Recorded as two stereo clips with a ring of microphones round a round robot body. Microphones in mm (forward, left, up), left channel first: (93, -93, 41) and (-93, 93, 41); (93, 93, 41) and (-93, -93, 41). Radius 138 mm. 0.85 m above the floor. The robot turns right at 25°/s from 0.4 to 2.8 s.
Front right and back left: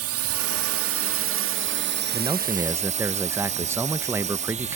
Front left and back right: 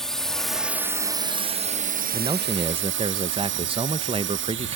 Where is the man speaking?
175° right; by 4.8 s 160° right.